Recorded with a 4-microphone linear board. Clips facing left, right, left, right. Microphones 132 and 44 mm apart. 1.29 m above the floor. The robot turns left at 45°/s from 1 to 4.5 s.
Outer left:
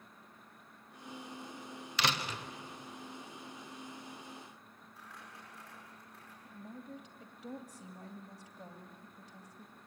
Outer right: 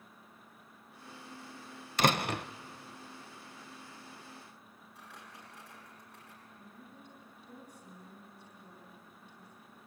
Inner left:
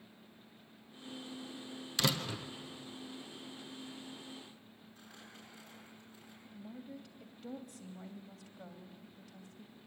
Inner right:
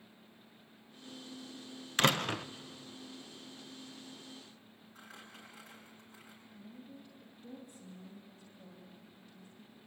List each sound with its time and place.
2.0 s a door slam: 45° right (ahead or behind), 0.6 m; by 2.5 s 65° right (ahead or behind), 0.6 m
5.0 s crumpling: 80° right, 8 m
6.5 s a woman speaking: 80° left, 2.5 m